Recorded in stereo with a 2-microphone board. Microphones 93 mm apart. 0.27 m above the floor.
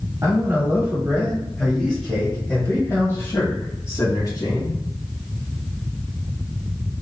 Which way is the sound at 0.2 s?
30° right (ahead or behind).